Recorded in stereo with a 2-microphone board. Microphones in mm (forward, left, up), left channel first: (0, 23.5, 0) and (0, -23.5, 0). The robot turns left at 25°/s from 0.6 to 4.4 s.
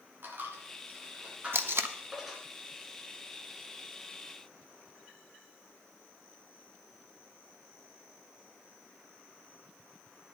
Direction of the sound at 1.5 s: 55° right (ahead or behind).